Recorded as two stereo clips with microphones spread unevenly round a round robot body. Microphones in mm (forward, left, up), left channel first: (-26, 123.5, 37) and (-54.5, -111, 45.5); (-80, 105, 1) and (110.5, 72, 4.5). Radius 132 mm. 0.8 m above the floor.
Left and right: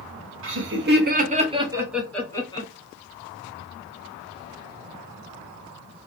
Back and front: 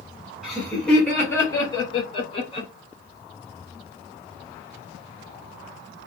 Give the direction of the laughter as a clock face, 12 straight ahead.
3 o'clock.